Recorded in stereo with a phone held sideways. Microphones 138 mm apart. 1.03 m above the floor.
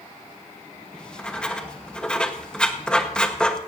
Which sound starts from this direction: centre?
Writing, at 0.9 s.